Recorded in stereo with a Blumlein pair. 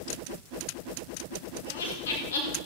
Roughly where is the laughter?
Ahead left.